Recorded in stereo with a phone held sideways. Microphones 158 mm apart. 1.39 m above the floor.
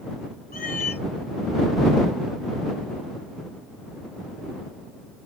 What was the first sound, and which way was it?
A cat meowing, 65° left (ahead or behind).